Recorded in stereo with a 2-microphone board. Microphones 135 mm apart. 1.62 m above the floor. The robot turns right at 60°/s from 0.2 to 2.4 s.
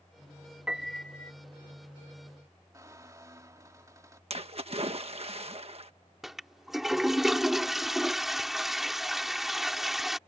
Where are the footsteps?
No footsteps in this recording.